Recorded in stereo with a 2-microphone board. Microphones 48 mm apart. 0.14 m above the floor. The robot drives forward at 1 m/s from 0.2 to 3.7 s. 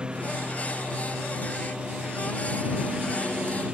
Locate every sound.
0.0 s a lawn mower: 20° right (ahead or behind); by 3.8 s 25° right (ahead or behind)